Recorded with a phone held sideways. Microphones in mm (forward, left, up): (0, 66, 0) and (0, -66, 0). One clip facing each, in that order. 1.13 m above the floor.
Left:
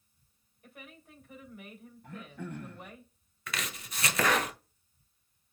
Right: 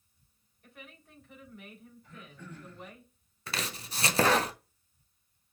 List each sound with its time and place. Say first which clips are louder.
0.6 s a woman speaking: left 1 dB; 10° left (ahead or behind), 3.5 m
2.0 s throat clearing: left 8 dB; 60° left (ahead or behind), 0.8 m
3.5 s chopping: right 2 dB; 30° right (ahead or behind), 0.5 m